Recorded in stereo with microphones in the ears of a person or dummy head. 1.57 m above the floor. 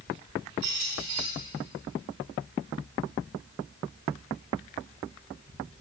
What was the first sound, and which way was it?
A squeak, 45° right (ahead or behind).